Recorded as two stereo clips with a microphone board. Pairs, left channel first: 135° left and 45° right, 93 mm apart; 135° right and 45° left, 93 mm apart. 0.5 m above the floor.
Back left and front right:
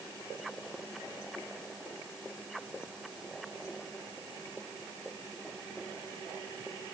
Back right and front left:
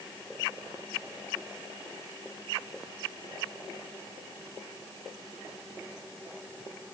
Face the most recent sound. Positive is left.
No sound to turn to.